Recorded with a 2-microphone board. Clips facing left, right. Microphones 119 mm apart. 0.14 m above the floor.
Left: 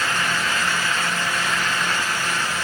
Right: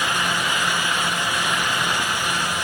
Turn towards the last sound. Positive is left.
No sound to turn to.